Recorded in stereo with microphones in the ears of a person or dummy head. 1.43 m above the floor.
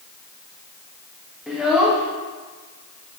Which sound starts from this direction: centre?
A child speaking, at 1.5 s.